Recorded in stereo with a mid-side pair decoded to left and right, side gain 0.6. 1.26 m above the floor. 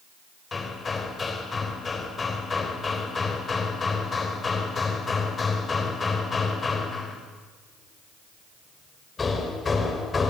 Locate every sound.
0.5 s hammering: 25° left, 4.5 m